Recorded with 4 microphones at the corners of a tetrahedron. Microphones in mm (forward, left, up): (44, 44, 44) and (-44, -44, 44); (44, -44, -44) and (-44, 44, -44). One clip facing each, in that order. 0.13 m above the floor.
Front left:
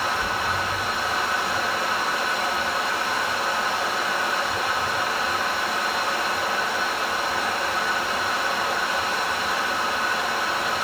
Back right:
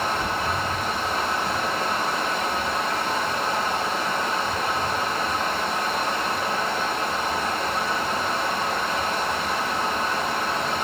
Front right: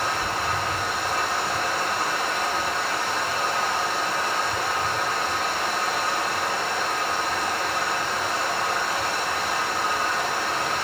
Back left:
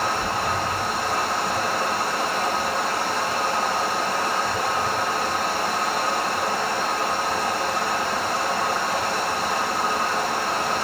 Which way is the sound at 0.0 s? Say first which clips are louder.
Back right 1 dB, back left 2 dB; straight behind.